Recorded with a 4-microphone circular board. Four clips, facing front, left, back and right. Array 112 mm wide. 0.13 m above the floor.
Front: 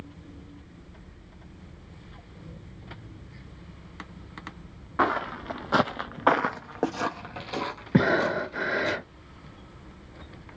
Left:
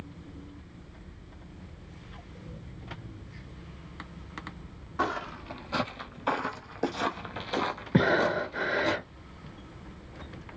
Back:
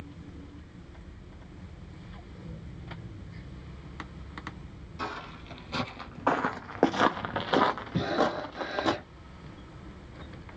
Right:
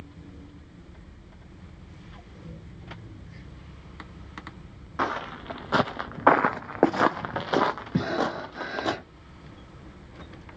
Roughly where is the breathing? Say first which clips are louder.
Left 6 dB, front 8 dB; ahead left.